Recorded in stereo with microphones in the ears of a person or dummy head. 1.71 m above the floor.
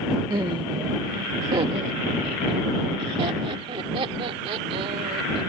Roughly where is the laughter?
Right.